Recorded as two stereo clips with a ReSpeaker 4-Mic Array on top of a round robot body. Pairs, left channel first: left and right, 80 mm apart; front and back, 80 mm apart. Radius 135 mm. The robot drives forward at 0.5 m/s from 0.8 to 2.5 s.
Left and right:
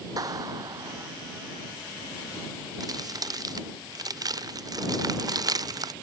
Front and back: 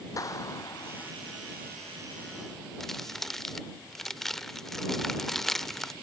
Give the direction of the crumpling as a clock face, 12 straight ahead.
3 o'clock.